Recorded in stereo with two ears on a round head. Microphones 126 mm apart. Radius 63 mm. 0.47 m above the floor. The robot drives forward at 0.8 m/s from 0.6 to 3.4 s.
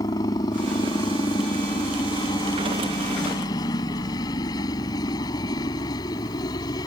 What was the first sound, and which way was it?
A helicopter, 25° left (ahead or behind).